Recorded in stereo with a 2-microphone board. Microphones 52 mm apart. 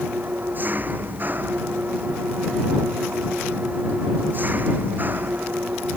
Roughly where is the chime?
No chime in this recording.